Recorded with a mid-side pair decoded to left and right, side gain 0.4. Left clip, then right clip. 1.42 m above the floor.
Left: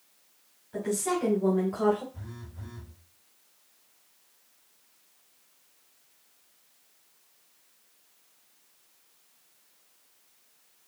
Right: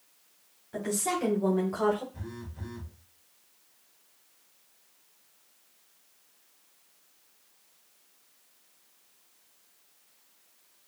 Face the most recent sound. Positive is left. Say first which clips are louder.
# right 4 dB
turn(degrees=-35)